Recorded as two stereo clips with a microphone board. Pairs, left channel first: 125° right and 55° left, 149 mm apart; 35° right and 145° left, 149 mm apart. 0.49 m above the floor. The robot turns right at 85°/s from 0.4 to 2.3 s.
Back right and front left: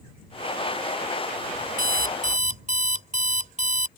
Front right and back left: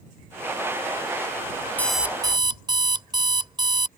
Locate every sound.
1.8 s an alarm clock: 45° left; by 3.9 s 85° left